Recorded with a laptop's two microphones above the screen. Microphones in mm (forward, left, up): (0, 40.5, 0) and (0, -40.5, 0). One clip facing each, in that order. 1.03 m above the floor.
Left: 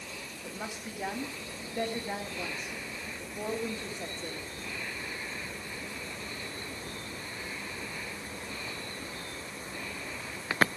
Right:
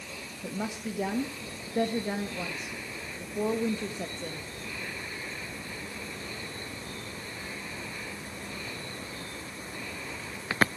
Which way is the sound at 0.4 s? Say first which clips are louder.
Right 7 dB; 60° right (ahead or behind).